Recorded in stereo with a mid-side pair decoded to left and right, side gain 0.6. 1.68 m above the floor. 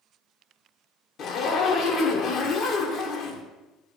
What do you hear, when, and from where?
1.2 s a zipper: 55° left, 1.4 m